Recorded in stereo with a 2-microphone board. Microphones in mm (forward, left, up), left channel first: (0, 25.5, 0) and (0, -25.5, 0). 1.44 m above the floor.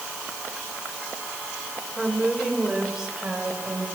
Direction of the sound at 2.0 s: 10° right (ahead or behind).